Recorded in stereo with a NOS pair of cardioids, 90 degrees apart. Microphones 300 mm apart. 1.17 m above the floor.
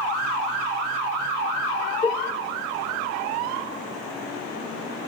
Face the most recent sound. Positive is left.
turn(degrees=25)